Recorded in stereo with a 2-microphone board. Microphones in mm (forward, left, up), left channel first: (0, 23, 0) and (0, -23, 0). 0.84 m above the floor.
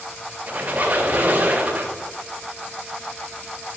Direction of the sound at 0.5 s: 40° right (ahead or behind).